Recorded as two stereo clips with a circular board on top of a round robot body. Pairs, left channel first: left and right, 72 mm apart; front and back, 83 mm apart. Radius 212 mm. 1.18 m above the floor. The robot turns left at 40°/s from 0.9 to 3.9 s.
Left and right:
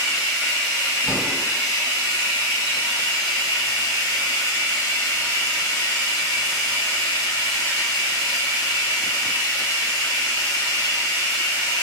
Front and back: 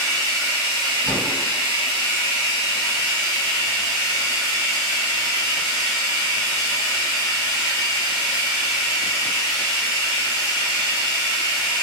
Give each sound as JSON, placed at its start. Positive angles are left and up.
{"t": 0.0, "sound": "running water", "azimuth_deg": 170, "distance_m": 0.9}
{"t": 1.0, "sound": "a door slam", "azimuth_deg": 180, "distance_m": 1.6}